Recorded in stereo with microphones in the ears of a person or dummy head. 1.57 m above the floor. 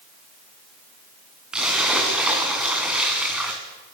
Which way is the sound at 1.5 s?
5° right (ahead or behind).